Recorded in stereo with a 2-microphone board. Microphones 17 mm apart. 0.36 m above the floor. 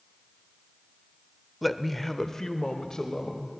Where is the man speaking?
Centre (ahead or behind), 0.9 m; by 3.6 s 45° left (ahead or behind), 1.7 m.